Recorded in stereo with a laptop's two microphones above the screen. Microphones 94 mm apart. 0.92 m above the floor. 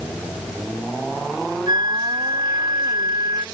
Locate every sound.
1.7 s a flute: 50° right (ahead or behind)